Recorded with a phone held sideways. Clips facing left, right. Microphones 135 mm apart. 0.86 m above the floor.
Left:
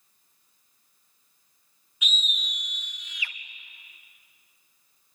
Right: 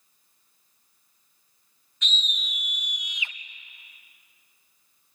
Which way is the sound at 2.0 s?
10° left (ahead or behind).